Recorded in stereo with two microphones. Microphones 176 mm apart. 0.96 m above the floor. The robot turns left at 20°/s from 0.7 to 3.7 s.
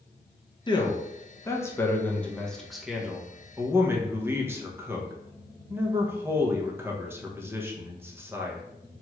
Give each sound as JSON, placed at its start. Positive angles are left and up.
{"t": 0.7, "sound": "a man speaking", "side_deg": 25, "distance_m": 0.6}